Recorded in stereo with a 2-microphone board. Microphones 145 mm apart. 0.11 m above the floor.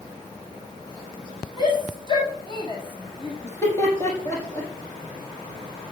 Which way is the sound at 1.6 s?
30° left (ahead or behind).